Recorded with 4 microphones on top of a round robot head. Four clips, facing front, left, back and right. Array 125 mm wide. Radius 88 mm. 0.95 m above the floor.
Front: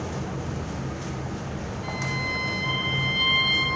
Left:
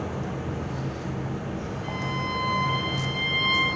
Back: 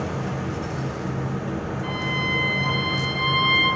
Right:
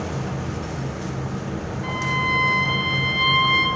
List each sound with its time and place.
1.8 s a violin: 120° right, 8 m